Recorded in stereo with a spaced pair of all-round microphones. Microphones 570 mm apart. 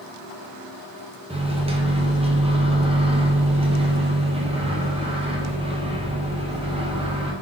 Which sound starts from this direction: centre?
A microwave, at 1.3 s.